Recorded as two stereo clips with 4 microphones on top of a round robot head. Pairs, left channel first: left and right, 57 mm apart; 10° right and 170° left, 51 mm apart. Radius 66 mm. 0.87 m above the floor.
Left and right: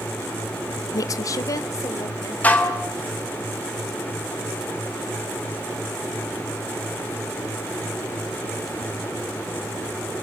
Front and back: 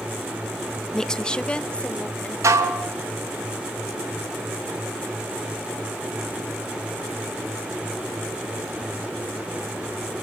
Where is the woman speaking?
70° left, 0.9 m; by 2.3 s 55° left, 3 m.